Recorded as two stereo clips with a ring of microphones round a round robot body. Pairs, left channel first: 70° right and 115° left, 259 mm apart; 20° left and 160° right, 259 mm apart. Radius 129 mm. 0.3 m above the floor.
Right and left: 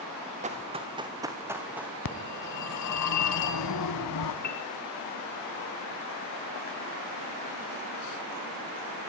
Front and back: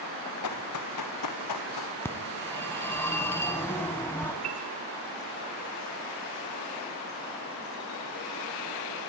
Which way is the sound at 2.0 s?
60° right.